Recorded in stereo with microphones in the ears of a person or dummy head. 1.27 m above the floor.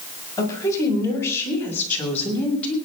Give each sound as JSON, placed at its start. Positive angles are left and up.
{"t": 0.4, "sound": "a woman speaking", "side_deg": 20, "distance_m": 7.0}